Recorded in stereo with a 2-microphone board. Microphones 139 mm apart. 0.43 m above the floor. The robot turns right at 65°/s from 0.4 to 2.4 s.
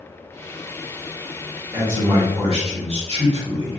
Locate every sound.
1.7 s a man speaking: 165° right, 1.8 m; by 3.8 s 120° right, 1.8 m